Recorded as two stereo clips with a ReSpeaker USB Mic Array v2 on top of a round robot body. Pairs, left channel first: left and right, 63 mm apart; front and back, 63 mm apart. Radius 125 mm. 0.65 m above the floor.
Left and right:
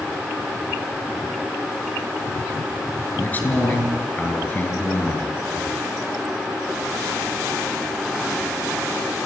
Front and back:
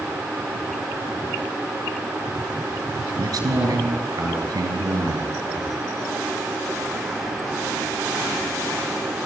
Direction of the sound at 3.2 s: 150° left.